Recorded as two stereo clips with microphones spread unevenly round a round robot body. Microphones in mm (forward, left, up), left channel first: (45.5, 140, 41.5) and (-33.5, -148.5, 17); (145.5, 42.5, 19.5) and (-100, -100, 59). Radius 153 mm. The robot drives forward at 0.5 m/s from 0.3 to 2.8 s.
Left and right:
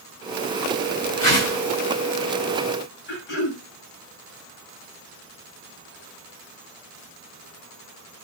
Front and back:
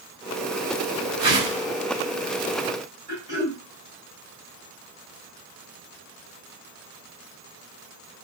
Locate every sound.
1.2 s a whoosh: 135° left, 1.8 m; by 1.6 s 140° left, 1.9 m
3.1 s throat clearing: 130° left, 1.5 m